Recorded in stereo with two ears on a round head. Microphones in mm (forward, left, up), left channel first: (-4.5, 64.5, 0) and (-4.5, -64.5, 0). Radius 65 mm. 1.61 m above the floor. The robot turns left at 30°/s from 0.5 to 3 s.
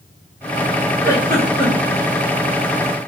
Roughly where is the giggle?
Left.